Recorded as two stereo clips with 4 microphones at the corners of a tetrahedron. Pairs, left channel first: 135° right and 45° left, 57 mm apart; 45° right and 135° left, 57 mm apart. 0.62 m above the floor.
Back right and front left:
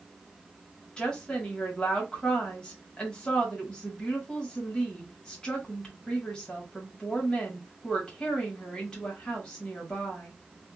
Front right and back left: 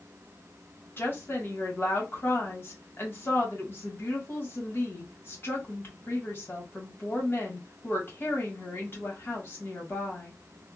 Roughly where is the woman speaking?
Ahead right.